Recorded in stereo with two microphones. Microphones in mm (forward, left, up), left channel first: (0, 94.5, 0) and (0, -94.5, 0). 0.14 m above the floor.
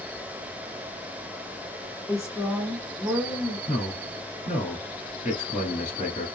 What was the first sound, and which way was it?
A woman speaking, 20° left (ahead or behind).